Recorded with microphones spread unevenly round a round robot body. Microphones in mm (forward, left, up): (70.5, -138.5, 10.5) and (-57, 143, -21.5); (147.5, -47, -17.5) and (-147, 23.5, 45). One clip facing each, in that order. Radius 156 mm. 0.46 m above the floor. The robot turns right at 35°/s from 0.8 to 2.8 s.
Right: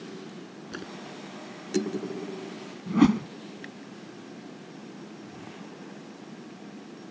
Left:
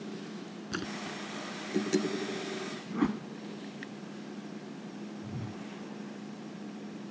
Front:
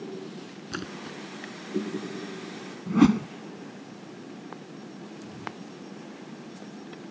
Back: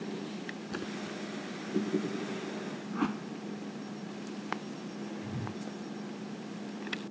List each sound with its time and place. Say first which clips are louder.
0.7 s a splash: left 2 dB, front 2 dB; 50° left; by 1.2 s 65° left
2.9 s a whoosh: right 11 dB, front 15 dB; 40° right
5.2 s a whoosh: left 2 dB, back 2 dB; 120° left